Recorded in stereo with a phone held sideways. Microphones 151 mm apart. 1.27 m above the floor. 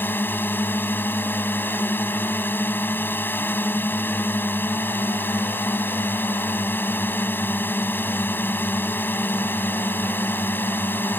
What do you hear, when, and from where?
0.0 s a drone: 15° left (ahead or behind)